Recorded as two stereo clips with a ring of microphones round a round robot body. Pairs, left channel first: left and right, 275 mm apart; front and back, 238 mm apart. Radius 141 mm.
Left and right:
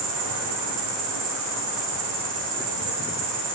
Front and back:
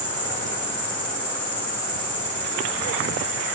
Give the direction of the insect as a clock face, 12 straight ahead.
2 o'clock.